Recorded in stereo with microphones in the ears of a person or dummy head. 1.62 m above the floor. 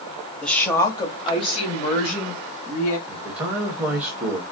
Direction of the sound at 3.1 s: 10° right (ahead or behind).